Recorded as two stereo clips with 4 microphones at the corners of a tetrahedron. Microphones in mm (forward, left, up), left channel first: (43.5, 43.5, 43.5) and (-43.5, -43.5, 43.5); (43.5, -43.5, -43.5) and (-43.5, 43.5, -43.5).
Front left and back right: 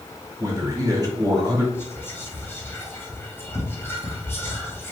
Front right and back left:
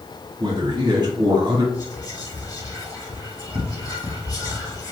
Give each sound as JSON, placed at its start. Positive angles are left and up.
{"t": 0.4, "sound": "a man speaking", "azimuth_deg": 175, "distance_m": 1.7}
{"t": 1.7, "sound": "whispering", "azimuth_deg": -15, "distance_m": 1.6}